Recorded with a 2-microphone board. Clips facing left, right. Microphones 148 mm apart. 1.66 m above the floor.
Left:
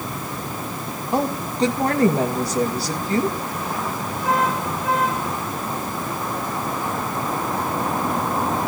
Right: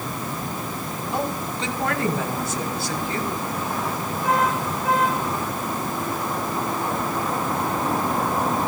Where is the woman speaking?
35° left (ahead or behind), 2 m.